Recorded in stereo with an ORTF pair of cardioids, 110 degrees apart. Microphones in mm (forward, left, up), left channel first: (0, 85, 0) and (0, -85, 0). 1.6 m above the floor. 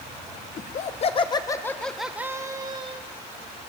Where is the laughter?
50° left, 1.4 m; by 3.0 s 35° right, 1.5 m.